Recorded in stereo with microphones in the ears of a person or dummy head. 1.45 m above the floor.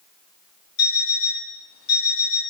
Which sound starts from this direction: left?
An alarm clock, at 0.8 s.